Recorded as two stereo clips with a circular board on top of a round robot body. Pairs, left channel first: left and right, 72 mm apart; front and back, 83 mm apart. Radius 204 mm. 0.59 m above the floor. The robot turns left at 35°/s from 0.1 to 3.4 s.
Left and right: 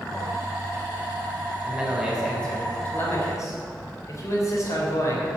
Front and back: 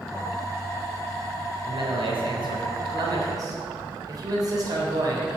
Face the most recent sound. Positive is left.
turn(degrees=135)